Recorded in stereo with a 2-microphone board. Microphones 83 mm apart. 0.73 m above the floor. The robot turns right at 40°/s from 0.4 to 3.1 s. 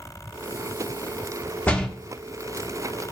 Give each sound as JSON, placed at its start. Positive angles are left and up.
{"t": 1.7, "sound": "a door slam", "side_deg": 20, "distance_m": 1.1}